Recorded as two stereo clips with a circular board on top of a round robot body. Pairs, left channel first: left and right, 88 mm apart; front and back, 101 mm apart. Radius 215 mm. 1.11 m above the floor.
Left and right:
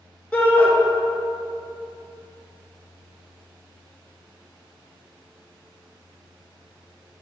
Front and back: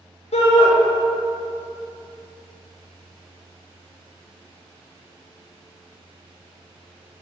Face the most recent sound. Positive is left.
turn(degrees=15)